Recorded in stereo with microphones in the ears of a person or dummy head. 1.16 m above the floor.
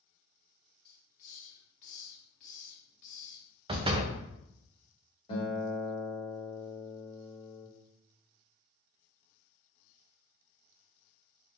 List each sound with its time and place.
0.8 s a hiss: 45° left (ahead or behind), 1.1 m
3.7 s a door slam: 25° right (ahead or behind), 0.6 m
5.3 s a guitar: 30° left (ahead or behind), 2 m